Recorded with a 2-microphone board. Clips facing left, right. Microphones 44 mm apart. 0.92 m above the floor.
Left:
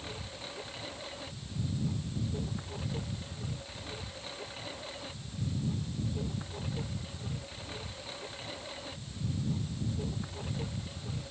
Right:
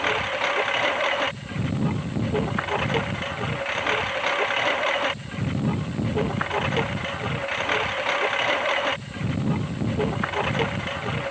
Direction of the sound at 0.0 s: 70° right (ahead or behind).